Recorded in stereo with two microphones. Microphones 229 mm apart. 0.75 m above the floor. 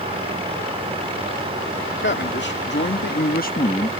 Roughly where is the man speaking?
Left.